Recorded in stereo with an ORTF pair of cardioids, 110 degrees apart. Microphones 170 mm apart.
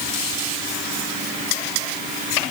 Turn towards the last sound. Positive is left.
No sound to turn to.